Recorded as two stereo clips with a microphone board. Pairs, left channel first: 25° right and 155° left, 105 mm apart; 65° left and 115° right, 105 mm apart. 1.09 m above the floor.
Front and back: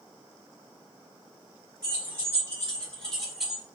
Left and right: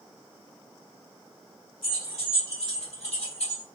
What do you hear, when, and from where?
1.8 s keys jangling: 35° left, 1.5 m; by 3.6 s 75° left, 1.0 m